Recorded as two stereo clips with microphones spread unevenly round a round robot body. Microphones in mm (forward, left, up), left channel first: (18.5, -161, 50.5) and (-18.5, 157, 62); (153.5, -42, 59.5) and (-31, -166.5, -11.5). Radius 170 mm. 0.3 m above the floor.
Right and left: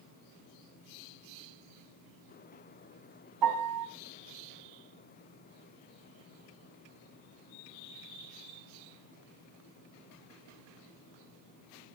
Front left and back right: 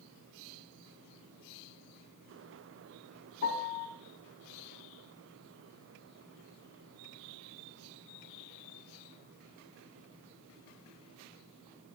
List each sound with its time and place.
3.4 s a piano: 100° left, 2.5 m